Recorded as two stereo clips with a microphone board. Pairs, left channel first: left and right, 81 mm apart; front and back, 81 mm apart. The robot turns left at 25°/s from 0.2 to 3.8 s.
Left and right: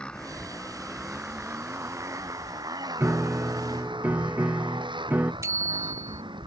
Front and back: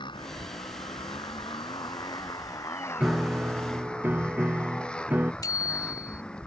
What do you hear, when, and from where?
0.0 s a motorcycle: 15° left; by 6.5 s 75° right
3.0 s a piano: 115° right; by 5.3 s 135° right
5.4 s a bicycle bell: 40° right